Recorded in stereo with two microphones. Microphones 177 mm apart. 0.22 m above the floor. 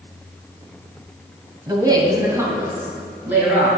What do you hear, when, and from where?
1.7 s a woman speaking: 25° right (ahead or behind), 1.3 m; by 3.7 s 10° right (ahead or behind), 3.5 m